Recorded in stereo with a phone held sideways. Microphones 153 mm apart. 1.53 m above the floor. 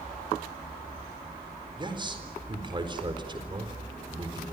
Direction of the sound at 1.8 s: 30° right (ahead or behind).